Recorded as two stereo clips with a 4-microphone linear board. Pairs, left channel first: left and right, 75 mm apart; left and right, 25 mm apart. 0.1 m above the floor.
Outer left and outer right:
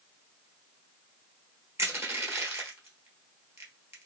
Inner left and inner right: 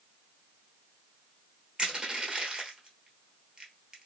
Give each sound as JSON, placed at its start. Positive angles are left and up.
{"t": 1.8, "sound": "crushing", "side_deg": -35, "distance_m": 1.1}